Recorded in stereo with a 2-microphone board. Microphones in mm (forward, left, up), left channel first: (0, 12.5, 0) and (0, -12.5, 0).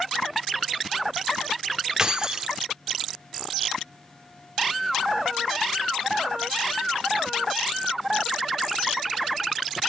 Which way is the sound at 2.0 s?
25° right (ahead or behind).